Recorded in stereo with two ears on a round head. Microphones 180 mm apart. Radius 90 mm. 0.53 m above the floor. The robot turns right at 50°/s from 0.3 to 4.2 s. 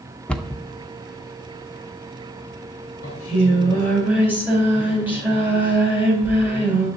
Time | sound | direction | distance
0.3 | a cupboard door | 5° left (ahead or behind) | 0.7 m
3.0 | singing | 130° left | 3.5 m